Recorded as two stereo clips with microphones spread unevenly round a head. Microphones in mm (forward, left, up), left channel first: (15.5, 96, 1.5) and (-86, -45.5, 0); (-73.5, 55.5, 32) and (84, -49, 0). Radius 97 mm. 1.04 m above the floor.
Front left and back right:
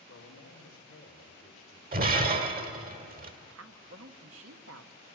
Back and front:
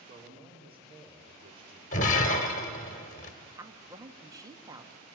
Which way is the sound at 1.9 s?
165° right.